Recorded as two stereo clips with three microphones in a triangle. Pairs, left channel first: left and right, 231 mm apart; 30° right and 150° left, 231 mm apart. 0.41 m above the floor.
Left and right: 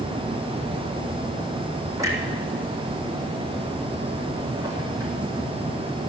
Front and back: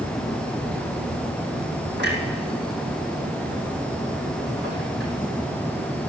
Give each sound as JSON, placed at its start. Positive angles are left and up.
{"t": 2.0, "sound": "a clunk", "azimuth_deg": -165, "distance_m": 3.0}